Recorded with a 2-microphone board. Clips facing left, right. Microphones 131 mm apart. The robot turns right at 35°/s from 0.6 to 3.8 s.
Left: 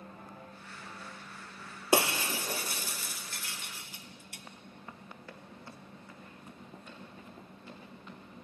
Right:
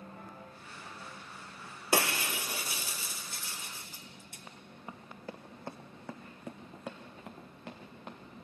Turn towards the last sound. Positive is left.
turn(degrees=-60)  # may be behind; listen again after turning